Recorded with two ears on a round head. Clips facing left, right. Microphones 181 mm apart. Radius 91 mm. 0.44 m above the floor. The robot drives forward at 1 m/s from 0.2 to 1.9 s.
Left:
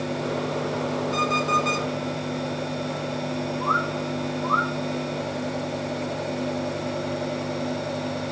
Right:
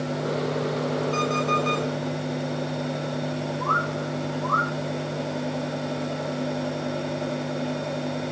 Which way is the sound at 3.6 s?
30° left (ahead or behind).